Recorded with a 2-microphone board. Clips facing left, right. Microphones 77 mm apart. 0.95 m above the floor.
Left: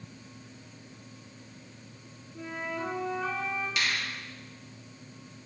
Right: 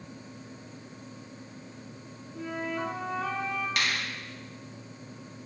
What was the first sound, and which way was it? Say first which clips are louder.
A flute: right 2 dB; 70° right (ahead or behind).